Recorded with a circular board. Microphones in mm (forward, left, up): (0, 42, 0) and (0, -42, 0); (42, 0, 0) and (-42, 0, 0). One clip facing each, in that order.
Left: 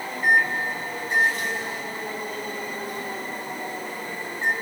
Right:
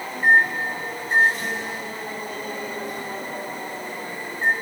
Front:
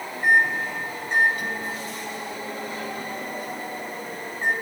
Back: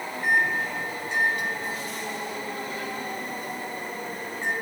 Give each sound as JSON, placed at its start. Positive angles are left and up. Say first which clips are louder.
{"t": 0.2, "sound": "a microwave", "louder": "right 3 dB, front 4 dB", "azimuth_deg": -40, "distance_m": 2.5}